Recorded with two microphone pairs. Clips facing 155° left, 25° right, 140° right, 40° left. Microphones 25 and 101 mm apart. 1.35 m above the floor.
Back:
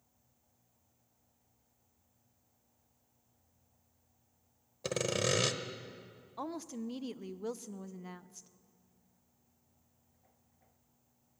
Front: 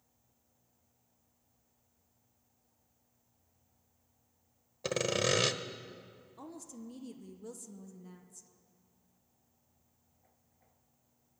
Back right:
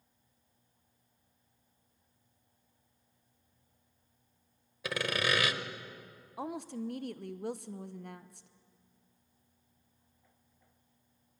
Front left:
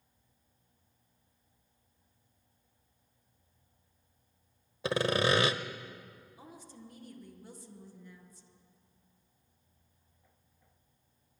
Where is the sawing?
45° left, 1.2 m.